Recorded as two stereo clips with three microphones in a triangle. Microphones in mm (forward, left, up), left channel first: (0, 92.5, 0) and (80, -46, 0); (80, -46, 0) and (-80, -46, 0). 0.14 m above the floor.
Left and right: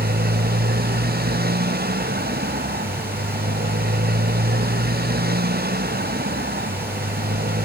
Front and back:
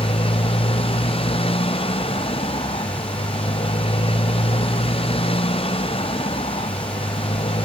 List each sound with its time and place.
0.0 s a motorcycle: 55° right